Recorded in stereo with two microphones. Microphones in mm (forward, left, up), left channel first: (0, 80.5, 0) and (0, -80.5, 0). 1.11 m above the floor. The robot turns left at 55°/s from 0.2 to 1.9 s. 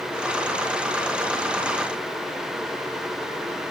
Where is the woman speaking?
No woman speaking in this recording.